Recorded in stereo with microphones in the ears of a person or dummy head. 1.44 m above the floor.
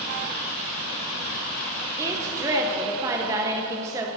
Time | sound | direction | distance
2.0 | a woman speaking | 15° right (ahead or behind) | 0.8 m